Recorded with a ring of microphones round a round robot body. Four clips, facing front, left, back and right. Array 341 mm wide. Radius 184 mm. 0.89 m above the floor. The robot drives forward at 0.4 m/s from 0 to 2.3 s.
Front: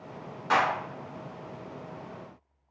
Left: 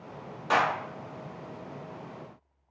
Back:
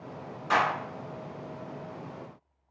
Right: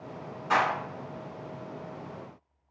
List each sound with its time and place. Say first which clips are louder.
0.5 s a clap: even, front 1 dB; 65° left, 1.5 m; by 0.7 s 70° left, 1.5 m